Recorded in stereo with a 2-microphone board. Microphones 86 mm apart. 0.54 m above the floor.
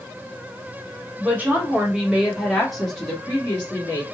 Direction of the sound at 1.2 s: 20° right (ahead or behind).